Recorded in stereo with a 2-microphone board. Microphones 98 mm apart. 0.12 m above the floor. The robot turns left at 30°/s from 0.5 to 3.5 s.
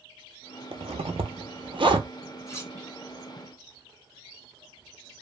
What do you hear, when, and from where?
0.7 s a zipper: 75° right (ahead or behind), 0.6 m; by 2.1 s 55° right (ahead or behind), 0.6 m
2.5 s cutlery clinking: 30° left (ahead or behind), 1.7 m; by 2.7 s 25° left (ahead or behind), 1.7 m